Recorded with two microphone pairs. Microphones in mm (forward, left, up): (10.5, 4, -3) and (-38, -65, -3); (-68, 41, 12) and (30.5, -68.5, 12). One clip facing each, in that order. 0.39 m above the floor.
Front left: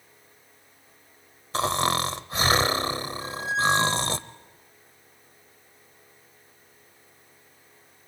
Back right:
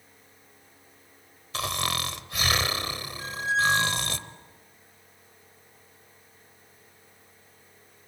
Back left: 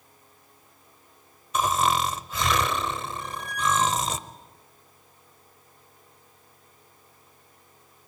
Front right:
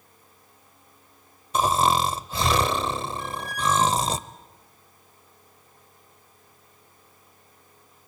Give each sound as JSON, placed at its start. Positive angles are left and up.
{"t": 1.5, "sound": "snoring", "azimuth_deg": 5, "distance_m": 0.8}
{"t": 3.2, "sound": "a squeak", "azimuth_deg": -75, "distance_m": 2.0}